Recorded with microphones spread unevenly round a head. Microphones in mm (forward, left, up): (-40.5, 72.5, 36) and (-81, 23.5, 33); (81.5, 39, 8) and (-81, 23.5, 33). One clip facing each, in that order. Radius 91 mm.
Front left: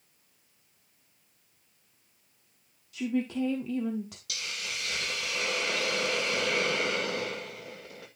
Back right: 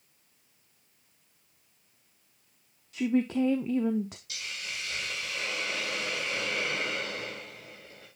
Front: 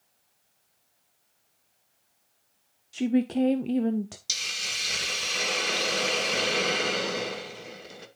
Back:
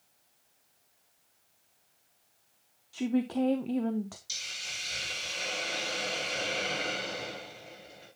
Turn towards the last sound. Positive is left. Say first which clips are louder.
# front left 1 dB, front 7 dB
turn(degrees=-10)